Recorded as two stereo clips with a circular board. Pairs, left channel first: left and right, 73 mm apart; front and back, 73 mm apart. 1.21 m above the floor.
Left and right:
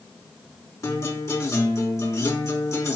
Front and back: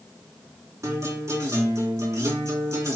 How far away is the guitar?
About 4 m.